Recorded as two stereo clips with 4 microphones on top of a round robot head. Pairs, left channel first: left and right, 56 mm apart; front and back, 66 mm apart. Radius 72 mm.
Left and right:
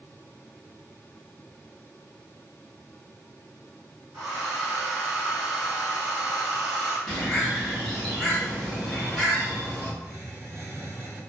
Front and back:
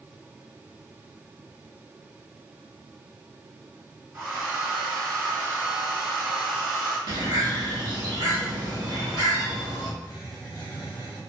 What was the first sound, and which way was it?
A hair dryer, 140° right.